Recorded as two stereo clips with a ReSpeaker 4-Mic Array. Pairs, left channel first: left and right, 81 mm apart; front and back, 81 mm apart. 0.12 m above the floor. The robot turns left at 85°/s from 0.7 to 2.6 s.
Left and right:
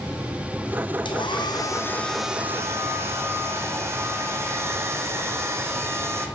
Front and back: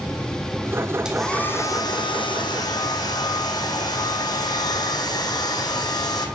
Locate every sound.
1.1 s a hair dryer: 100° left, 1.1 m; by 6.3 s 35° right, 1.1 m